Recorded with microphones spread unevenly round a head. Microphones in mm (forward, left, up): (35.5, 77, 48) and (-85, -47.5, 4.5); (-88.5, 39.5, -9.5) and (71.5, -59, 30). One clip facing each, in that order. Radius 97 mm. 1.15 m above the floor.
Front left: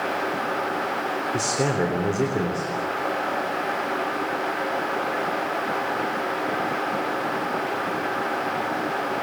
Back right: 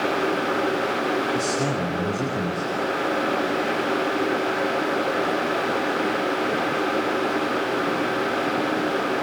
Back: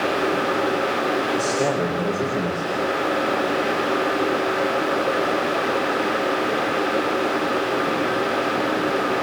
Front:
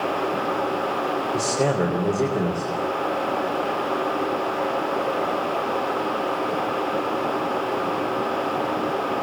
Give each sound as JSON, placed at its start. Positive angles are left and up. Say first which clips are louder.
{"t": 1.3, "sound": "a man speaking", "louder": "even, back 1 dB", "azimuth_deg": 30, "distance_m": 3.5}